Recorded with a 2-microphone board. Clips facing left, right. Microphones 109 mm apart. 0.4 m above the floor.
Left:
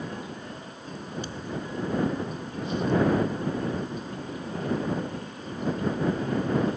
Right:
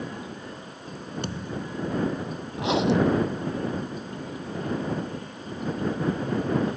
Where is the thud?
60° right (ahead or behind).